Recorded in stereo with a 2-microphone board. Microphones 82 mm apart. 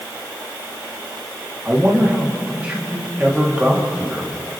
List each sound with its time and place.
1.6 s a man speaking: 15° right (ahead or behind), 3 m